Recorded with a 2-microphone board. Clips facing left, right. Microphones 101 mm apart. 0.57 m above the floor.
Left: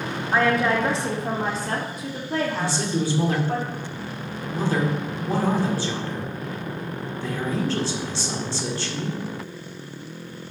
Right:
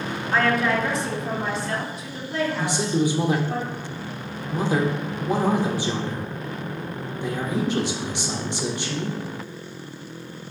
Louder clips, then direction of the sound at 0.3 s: Left 1 dB; 15° left (ahead or behind).